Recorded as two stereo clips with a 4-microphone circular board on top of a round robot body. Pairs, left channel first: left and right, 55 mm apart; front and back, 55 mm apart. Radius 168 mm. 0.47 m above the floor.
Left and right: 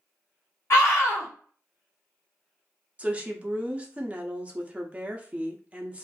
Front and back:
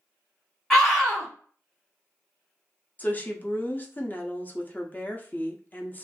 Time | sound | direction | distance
0.7 | a scream | 75° left | 2.0 m
3.0 | a woman speaking | 35° right | 0.9 m